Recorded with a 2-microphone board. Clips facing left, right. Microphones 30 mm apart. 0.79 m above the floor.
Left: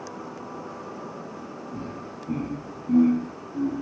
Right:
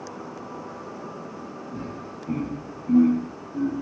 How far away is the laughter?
About 1.1 m.